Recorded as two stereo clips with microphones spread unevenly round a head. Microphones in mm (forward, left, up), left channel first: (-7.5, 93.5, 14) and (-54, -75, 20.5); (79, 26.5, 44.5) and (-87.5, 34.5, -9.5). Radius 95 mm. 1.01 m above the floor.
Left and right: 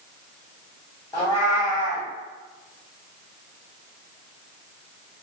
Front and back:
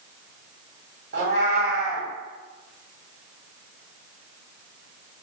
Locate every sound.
1.1 s a cat meowing: 145° left, 1.6 m